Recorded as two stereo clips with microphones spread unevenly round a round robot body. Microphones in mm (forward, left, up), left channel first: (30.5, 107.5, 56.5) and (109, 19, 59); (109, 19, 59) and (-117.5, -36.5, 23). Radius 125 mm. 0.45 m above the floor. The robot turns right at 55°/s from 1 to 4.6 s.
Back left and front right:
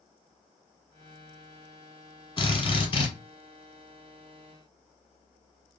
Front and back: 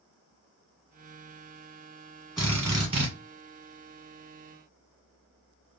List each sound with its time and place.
2.4 s a drill: 120° left, 1.5 m; by 3.1 s 160° left, 1.5 m